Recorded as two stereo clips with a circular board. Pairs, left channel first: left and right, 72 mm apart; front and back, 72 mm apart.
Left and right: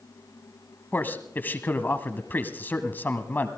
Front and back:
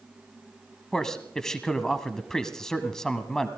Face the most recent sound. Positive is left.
turn(degrees=75)